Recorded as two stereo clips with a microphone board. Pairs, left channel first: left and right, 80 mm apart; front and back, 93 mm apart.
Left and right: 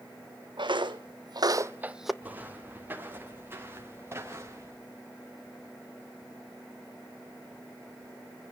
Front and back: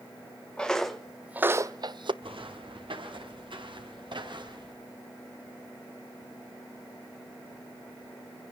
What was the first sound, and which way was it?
Footsteps, 80° right.